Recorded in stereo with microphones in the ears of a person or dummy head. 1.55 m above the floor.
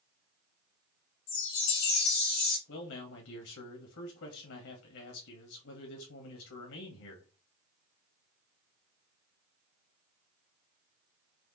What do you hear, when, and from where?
1.3 s a chime: 70° left (ahead or behind), 4.5 m
2.7 s a man speaking: 75° left (ahead or behind), 2.5 m